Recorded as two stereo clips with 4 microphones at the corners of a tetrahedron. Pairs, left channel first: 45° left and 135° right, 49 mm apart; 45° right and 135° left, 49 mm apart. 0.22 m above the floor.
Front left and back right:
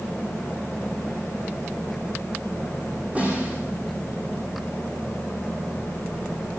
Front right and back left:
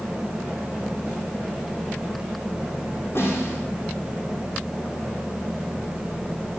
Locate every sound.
3.1 s a snare drum: 75° right, 9 m